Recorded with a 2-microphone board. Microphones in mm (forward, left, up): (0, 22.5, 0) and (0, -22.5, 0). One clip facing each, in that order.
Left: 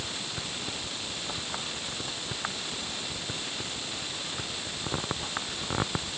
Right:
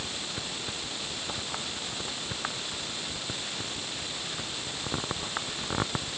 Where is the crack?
I don't hear a crack.